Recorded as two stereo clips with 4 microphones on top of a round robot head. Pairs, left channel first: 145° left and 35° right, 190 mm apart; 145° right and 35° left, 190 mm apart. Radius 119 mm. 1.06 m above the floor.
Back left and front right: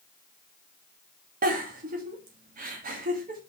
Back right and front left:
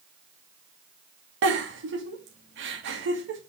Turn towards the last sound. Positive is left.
turn(degrees=15)